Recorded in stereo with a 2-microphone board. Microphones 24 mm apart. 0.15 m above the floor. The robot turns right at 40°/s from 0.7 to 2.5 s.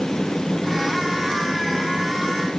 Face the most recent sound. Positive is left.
No sound to turn to.